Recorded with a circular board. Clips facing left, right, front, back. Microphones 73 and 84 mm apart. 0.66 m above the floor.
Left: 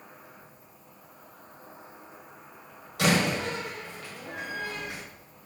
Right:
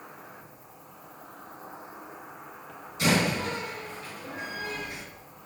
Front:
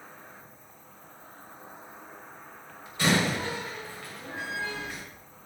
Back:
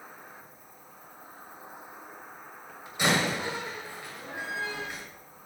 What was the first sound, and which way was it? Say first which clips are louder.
An insect: right 4 dB, back 1 dB; 100° right.